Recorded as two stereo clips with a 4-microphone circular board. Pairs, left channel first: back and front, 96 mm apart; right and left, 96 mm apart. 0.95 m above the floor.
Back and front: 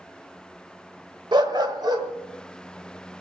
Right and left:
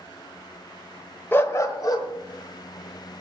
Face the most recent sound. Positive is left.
turn(degrees=-50)